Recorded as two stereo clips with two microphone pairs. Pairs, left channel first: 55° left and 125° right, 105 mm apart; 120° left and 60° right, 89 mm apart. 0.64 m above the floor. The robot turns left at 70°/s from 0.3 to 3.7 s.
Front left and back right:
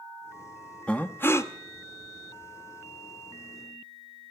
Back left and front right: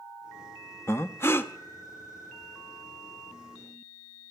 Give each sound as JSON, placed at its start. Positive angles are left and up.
{"t": 0.9, "sound": "breathing", "azimuth_deg": 125, "distance_m": 0.6}